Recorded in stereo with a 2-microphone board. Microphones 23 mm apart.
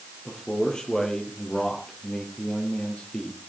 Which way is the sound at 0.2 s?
30° left (ahead or behind).